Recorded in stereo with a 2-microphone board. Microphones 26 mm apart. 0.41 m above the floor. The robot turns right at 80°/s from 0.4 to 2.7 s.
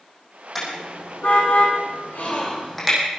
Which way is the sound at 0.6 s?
Centre (ahead or behind).